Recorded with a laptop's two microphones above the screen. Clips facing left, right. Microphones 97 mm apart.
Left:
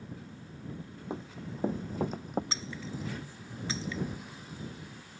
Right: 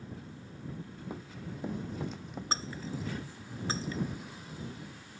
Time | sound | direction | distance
1.1 | running footsteps | 25° left (ahead or behind) | ?
2.5 | breaking glass | 40° right (ahead or behind) | ?